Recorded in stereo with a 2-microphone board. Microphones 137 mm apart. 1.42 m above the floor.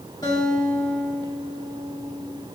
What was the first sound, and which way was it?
A guitar, 30° left (ahead or behind).